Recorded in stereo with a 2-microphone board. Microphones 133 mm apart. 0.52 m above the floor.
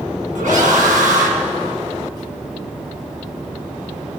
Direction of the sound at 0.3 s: 75° right (ahead or behind).